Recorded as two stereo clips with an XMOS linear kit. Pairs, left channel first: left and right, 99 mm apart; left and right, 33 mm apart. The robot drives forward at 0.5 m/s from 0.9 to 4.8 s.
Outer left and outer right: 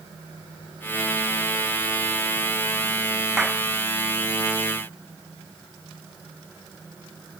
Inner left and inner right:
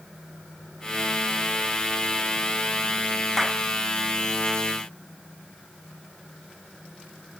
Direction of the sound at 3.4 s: 5° right (ahead or behind).